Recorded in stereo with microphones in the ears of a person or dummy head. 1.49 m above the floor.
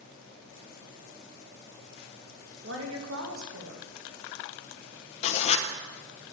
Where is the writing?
35° left (ahead or behind), 1.1 m.